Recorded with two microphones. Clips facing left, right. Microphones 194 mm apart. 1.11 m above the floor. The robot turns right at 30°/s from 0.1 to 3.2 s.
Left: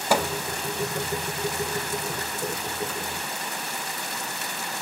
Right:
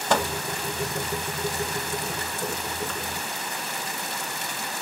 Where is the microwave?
10° left (ahead or behind), 1.4 m; by 0.3 s 15° left (ahead or behind), 1.4 m.